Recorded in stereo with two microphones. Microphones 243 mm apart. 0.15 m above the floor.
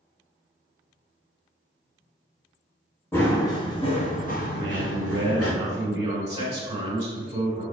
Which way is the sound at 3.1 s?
10° left (ahead or behind).